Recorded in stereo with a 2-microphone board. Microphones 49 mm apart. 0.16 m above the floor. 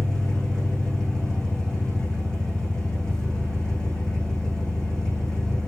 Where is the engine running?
10° left (ahead or behind), 6.5 m.